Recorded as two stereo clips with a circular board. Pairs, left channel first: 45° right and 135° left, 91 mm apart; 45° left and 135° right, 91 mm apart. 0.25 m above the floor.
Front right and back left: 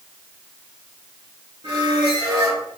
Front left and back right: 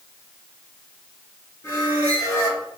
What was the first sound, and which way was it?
A squeak, 105° left.